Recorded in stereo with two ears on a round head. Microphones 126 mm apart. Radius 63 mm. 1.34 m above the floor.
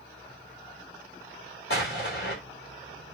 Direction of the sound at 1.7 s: 75° left (ahead or behind).